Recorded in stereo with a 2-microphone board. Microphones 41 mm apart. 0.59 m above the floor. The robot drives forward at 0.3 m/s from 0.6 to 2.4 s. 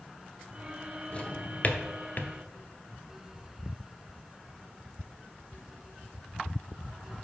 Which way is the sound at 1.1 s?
30° left (ahead or behind).